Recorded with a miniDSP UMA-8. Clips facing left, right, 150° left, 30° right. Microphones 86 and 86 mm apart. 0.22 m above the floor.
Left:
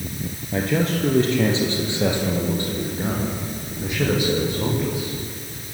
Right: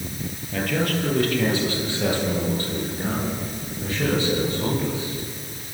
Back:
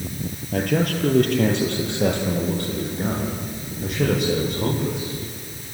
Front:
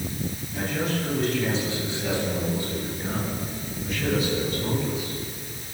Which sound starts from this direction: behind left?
A man speaking, at 0.5 s.